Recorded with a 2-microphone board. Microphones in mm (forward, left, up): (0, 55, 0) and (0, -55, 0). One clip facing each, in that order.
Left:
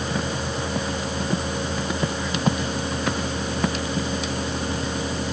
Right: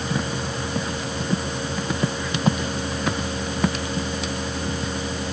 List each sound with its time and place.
Only background noise.